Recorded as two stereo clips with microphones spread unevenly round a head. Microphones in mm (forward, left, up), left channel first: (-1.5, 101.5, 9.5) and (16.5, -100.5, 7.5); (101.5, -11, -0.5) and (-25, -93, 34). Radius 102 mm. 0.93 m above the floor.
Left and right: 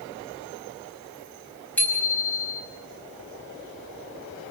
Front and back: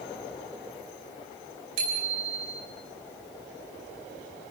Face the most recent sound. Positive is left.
turn(degrees=180)